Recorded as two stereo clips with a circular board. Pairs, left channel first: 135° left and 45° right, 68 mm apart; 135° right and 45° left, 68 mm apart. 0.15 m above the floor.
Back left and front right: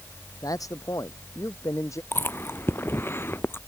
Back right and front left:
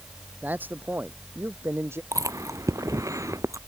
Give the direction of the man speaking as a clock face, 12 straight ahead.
8 o'clock.